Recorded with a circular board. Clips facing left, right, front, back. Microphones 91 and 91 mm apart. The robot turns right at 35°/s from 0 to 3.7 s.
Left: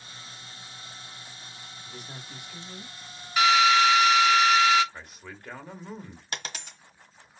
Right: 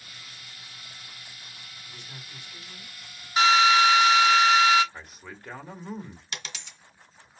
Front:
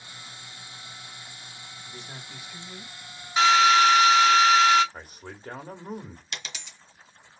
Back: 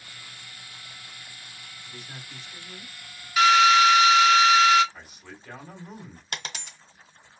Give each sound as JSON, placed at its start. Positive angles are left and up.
{"t": 1.9, "sound": "a man speaking", "azimuth_deg": 55, "distance_m": 1.9}
{"t": 3.4, "sound": "a drill", "azimuth_deg": -40, "distance_m": 1.7}
{"t": 4.9, "sound": "a man speaking", "azimuth_deg": -5, "distance_m": 1.4}
{"t": 6.3, "sound": "a dropped coin", "azimuth_deg": 135, "distance_m": 1.3}